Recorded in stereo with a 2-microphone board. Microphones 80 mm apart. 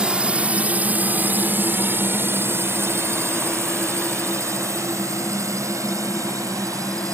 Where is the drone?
10° right (ahead or behind); by 7.1 s 40° right (ahead or behind).